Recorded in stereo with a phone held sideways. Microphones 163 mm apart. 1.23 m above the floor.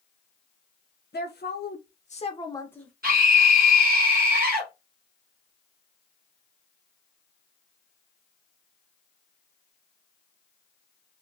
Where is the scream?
65° right (ahead or behind), 0.7 m.